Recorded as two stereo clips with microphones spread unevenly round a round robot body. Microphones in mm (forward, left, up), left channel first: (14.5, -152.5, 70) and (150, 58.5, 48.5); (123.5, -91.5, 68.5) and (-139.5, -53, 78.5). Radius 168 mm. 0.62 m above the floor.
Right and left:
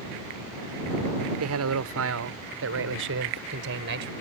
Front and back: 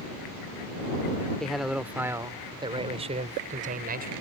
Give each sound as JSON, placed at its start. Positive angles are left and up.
{"t": 1.4, "sound": "a man speaking", "azimuth_deg": 80}